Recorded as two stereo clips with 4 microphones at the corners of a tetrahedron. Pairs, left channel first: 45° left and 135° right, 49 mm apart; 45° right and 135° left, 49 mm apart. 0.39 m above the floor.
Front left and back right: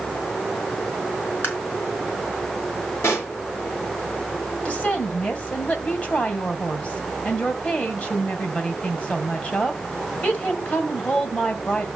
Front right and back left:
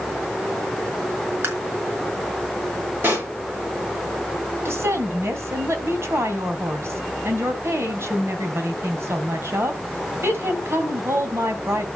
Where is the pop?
85° left, 5 m.